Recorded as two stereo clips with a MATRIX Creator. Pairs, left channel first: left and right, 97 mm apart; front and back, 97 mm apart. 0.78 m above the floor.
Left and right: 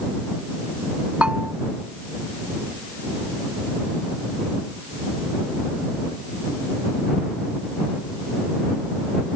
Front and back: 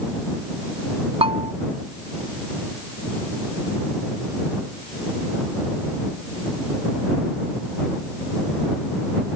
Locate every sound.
1.2 s a bell: 170° right